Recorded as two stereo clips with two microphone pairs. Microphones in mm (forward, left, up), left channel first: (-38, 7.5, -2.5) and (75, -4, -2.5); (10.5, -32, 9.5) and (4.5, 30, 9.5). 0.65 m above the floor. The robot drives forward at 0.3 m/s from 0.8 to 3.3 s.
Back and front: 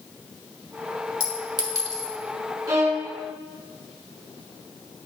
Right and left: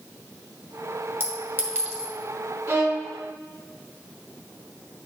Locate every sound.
1.2 s a clink: 45° left, 1.4 m; by 2.1 s 50° left, 1.2 m
2.7 s a violin: 55° left, 1.2 m; by 3.1 s 60° left, 1.1 m